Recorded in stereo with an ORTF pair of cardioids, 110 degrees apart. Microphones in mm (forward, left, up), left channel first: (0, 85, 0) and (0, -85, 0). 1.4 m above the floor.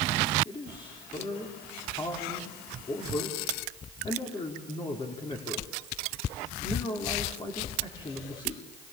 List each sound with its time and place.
0.5 s a man speaking: 30° left, 4.5 m